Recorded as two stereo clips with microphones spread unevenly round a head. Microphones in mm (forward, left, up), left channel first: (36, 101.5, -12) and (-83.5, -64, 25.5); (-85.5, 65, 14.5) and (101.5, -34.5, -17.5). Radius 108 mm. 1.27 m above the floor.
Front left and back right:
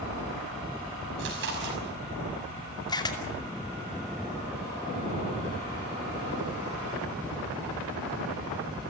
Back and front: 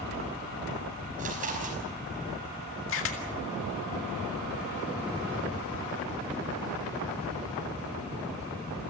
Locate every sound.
1.2 s chewing: 85° right, 5.5 m
2.9 s a camera shutter: 125° left, 2.5 m